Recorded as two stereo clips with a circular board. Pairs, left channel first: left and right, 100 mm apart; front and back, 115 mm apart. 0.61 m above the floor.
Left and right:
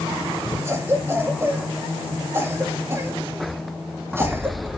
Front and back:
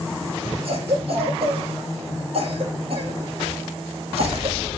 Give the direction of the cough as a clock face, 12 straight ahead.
5 o'clock.